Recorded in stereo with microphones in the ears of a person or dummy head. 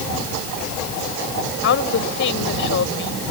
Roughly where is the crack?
I don't hear a crack.